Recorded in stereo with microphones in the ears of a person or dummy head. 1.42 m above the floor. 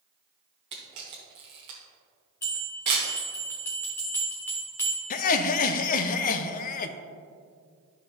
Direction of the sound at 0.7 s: 25° right (ahead or behind).